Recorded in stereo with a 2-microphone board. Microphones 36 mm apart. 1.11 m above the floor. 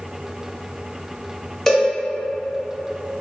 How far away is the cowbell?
About 1.0 m.